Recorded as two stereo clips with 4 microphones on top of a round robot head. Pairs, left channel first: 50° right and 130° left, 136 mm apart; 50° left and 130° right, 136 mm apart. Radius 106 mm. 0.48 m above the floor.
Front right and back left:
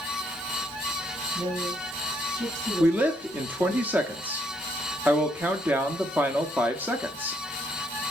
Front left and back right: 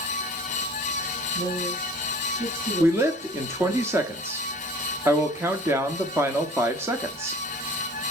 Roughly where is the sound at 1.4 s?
Behind.